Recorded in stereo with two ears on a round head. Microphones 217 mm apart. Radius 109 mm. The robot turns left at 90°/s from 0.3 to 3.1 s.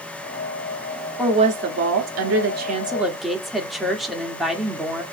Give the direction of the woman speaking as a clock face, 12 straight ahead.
12 o'clock.